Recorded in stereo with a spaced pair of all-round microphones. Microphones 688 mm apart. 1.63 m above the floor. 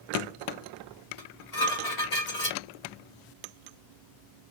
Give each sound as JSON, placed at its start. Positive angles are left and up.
{"t": 1.2, "sound": "dishes clattering", "side_deg": 65, "distance_m": 2.5}